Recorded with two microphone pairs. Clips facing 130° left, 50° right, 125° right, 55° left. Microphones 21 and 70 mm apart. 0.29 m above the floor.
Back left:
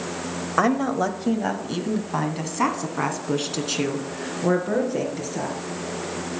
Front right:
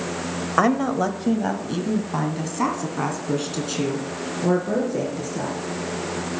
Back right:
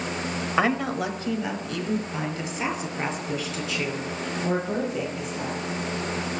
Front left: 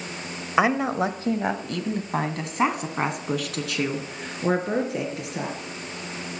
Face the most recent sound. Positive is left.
turn(degrees=70)